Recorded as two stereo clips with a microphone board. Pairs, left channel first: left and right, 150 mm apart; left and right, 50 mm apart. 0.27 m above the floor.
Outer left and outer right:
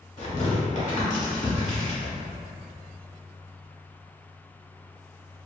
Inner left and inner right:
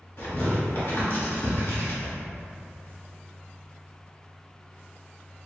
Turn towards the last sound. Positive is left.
turn(degrees=50)  # may be behind; listen again after turning